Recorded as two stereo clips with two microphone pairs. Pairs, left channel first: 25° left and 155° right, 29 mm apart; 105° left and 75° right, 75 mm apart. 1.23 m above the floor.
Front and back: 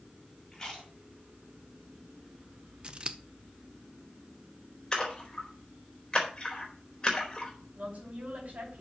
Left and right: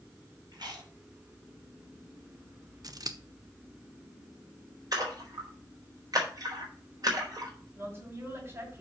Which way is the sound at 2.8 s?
105° right.